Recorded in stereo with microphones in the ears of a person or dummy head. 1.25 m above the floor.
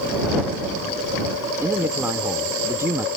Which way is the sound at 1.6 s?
10° right (ahead or behind).